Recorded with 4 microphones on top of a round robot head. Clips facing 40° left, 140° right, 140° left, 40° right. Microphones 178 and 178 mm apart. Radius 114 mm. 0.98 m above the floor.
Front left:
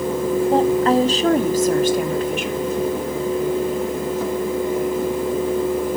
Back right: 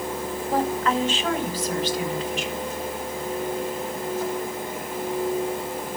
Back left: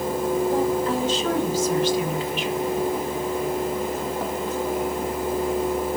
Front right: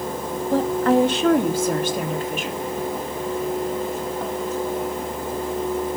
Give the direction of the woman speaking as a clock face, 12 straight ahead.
1 o'clock.